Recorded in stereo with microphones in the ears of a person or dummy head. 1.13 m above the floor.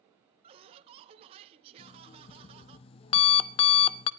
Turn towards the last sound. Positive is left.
turn(degrees=35)  # may be behind; listen again after turning